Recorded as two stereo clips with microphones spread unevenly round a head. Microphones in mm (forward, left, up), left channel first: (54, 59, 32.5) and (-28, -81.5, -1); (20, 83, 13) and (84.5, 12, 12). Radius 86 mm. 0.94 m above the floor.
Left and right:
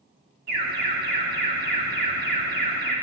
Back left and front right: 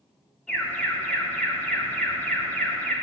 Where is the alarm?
140° right, 2.5 m.